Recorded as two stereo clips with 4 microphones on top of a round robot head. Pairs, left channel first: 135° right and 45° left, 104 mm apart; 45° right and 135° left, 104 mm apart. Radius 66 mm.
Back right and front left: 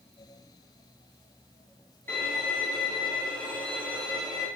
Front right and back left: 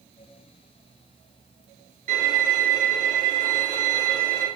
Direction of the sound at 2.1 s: 150° left.